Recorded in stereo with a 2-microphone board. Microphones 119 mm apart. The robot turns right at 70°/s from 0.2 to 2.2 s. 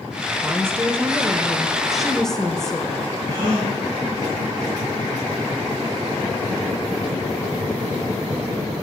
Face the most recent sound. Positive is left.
turn(degrees=-35)  # may be behind; listen again after turning